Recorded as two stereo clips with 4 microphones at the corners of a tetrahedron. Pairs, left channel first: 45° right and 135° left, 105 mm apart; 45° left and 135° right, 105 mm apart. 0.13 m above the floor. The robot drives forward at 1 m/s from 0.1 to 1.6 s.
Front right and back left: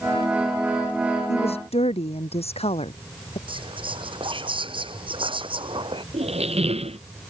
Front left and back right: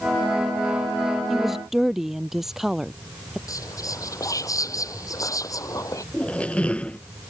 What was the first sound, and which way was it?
A woman speaking, 45° right.